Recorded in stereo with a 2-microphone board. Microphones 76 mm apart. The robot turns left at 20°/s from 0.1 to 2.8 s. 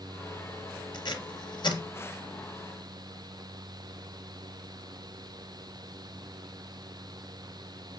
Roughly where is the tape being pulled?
Left.